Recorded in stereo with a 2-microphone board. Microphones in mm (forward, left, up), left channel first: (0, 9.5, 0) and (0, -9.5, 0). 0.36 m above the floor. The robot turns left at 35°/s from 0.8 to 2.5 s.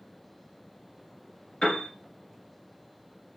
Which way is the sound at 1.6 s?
40° left (ahead or behind).